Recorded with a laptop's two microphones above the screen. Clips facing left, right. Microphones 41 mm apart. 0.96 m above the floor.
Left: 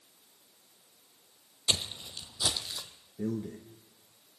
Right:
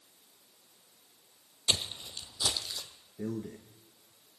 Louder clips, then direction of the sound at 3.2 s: Left 3 dB; 5° right (ahead or behind).